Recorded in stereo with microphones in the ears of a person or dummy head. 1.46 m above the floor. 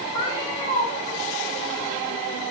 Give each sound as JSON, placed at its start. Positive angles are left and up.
{"t": 0.1, "sound": "a cat meowing", "side_deg": 20, "distance_m": 1.0}